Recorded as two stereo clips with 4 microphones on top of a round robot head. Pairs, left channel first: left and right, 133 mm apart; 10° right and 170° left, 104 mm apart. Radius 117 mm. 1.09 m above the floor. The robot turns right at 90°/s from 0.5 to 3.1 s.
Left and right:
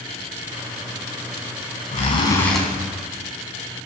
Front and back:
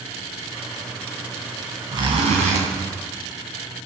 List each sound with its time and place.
1.9 s a zipper: 120° left, 3.5 m; by 2.6 s 175° right, 3.5 m